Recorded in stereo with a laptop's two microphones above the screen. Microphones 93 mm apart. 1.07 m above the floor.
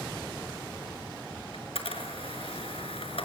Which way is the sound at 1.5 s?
85° left.